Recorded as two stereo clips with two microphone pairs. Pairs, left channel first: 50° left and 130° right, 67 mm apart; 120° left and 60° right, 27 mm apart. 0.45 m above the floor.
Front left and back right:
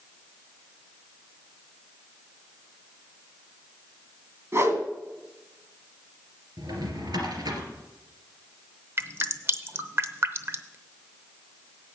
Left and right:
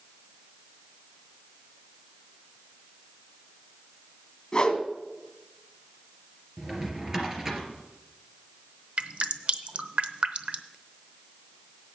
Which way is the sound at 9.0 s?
85° right.